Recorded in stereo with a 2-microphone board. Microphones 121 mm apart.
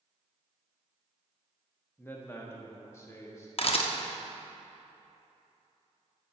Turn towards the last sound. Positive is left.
turn(degrees=50)  # may be behind; listen again after turning